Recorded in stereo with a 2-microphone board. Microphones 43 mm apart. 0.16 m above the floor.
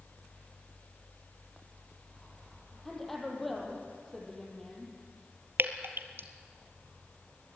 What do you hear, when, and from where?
2.9 s a woman speaking: 5° left (ahead or behind), 5.5 m
5.6 s dripping: 65° right (ahead or behind), 1.4 m